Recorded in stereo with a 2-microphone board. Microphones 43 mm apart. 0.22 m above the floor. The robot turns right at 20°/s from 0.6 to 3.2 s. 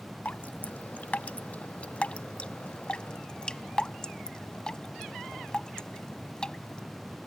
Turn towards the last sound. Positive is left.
turn(degrees=20)  # may be behind; listen again after turning